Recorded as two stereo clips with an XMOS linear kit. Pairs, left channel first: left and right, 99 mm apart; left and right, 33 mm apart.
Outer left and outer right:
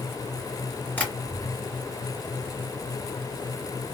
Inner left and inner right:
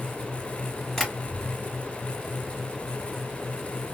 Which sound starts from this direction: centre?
Tapping, at 1.0 s.